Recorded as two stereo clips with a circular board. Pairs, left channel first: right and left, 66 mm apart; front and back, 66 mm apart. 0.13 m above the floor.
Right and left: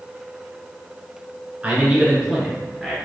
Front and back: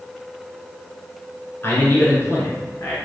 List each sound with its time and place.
1.6 s a man speaking: 30° left, 1.4 m; by 3.0 s straight ahead, 1.7 m